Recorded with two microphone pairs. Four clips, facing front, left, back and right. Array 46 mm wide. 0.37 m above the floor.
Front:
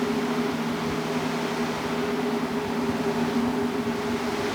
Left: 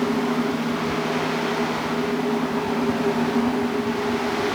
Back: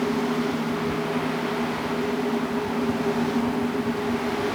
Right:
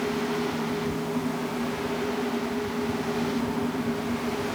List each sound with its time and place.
Only background noise.